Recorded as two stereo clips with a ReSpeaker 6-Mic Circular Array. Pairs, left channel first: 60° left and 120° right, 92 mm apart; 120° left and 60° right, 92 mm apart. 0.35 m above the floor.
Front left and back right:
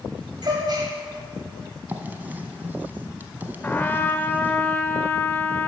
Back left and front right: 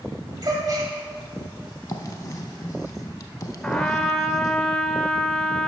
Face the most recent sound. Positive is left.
turn(degrees=65)